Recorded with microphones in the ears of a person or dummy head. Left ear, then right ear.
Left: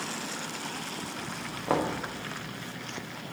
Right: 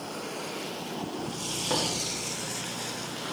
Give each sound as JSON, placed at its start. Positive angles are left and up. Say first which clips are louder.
{"t": 1.7, "sound": "knocking", "louder": "left 1 dB", "side_deg": 25, "distance_m": 1.8}